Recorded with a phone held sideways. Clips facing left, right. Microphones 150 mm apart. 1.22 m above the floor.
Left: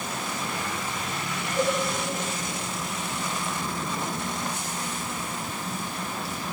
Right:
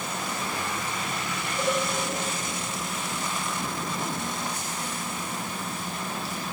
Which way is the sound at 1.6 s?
25° left (ahead or behind).